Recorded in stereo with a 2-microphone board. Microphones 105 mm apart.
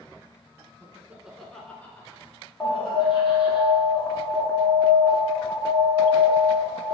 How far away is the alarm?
About 1.3 m.